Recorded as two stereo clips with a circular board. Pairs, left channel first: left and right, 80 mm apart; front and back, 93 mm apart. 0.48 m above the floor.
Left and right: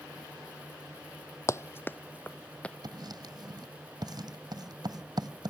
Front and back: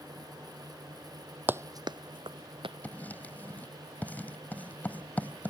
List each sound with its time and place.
1.5 s running footsteps: 120° left; by 2.7 s 165° left
2.8 s writing: 70° right